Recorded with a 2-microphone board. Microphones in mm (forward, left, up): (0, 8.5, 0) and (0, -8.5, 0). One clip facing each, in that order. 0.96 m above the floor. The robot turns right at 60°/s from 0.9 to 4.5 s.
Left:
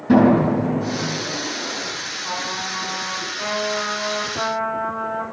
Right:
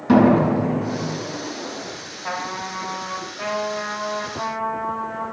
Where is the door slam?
45° right (ahead or behind), 8.5 m; by 1.2 s 60° right (ahead or behind), 8.5 m.